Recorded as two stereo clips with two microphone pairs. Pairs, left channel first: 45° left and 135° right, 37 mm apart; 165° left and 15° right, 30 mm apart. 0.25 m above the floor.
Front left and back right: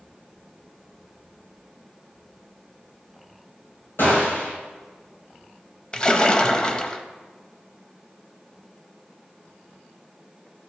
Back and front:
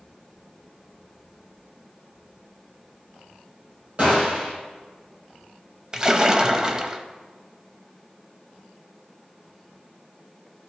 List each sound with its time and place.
4.0 s a gunshot: 30° left, 3 m
5.9 s a splash: 20° left, 0.5 m